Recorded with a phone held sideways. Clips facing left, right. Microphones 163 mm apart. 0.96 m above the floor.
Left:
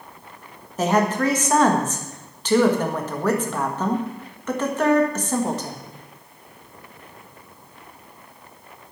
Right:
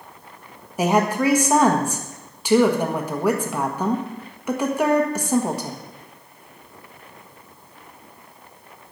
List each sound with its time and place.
0.8 s a woman speaking: 10° right (ahead or behind), 1.4 m